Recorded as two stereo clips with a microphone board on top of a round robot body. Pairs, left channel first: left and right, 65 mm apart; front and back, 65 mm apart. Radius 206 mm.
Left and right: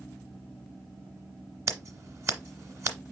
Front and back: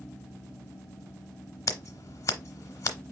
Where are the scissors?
40° right, 0.9 m.